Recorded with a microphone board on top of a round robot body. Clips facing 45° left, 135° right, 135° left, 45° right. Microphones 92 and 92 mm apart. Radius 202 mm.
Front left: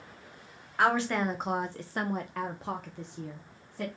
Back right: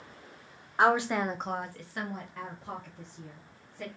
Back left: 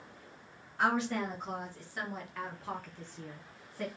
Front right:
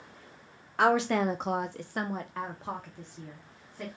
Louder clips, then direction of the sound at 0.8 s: Back right 1 dB, front right 6 dB; 65° right.